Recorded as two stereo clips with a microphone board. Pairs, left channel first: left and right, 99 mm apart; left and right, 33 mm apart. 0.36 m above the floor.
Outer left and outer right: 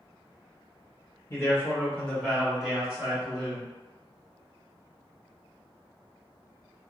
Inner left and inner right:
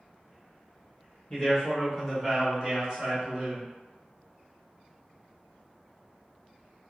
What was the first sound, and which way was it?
A man speaking, 30° left (ahead or behind).